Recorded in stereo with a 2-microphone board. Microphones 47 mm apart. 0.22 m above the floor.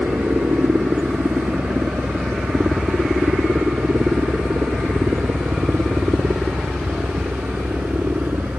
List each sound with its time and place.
0.0 s a helicopter: 50° right (ahead or behind)